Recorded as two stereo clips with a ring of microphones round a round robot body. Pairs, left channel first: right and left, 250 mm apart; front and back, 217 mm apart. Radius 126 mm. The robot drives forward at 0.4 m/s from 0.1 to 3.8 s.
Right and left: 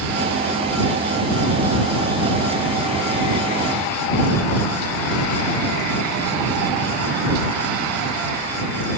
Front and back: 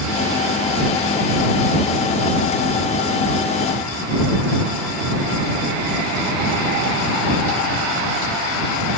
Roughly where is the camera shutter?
I don't hear a camera shutter.